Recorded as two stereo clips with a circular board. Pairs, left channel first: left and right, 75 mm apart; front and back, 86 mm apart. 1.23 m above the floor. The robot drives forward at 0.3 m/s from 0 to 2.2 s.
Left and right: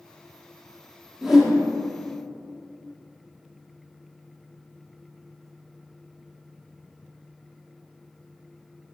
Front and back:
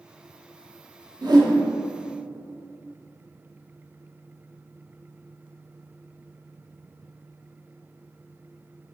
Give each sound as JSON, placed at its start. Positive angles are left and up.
{"t": 1.2, "sound": "a whoosh", "azimuth_deg": -175, "distance_m": 1.0}